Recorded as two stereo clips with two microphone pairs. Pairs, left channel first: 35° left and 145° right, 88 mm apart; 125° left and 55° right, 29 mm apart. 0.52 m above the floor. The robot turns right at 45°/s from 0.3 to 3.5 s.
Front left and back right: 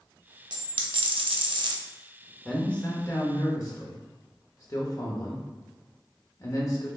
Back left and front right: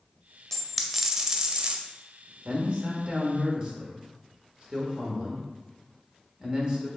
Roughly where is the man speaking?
Ahead right.